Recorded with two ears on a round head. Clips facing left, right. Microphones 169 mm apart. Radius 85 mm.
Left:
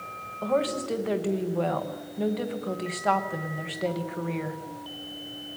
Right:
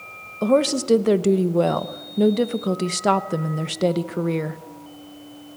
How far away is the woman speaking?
About 0.9 m.